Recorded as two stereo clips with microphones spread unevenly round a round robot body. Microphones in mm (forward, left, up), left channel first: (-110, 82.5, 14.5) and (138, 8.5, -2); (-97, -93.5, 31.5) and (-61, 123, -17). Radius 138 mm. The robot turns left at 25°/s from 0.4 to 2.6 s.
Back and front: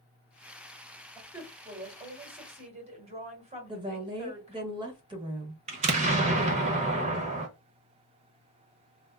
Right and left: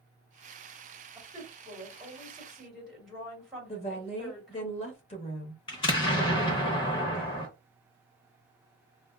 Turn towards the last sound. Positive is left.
turn(degrees=-25)